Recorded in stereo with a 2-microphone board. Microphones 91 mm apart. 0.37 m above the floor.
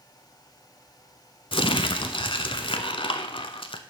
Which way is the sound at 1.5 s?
75° left (ahead or behind).